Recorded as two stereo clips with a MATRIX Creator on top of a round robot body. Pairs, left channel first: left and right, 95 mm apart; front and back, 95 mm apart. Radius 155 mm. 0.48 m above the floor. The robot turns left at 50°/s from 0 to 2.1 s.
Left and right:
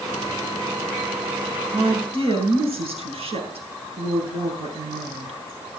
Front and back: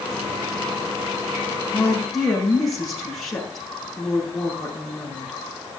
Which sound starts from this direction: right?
A woman speaking, at 1.7 s.